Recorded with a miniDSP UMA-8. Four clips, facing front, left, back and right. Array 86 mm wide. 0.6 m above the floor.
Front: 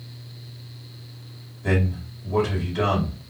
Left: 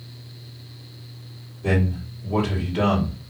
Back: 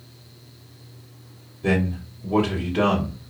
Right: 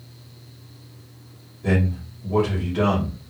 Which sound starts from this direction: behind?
A man speaking, at 1.6 s.